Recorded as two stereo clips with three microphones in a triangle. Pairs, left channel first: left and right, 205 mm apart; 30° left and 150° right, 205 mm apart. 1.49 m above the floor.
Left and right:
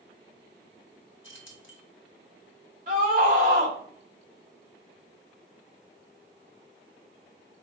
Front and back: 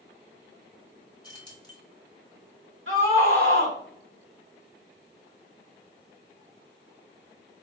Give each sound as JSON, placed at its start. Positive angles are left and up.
{"t": 1.2, "sound": "keys jangling", "azimuth_deg": 100, "distance_m": 1.6}
{"t": 2.9, "sound": "a scream", "azimuth_deg": -140, "distance_m": 2.5}